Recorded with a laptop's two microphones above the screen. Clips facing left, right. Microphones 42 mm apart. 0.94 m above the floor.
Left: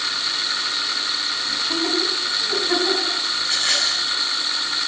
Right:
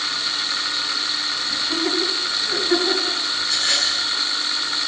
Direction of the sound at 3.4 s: 45° left (ahead or behind).